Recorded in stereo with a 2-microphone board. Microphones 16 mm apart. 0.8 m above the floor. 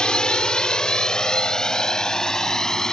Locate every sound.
0.0 s a drone: 60° left (ahead or behind); by 2.9 s 35° left (ahead or behind)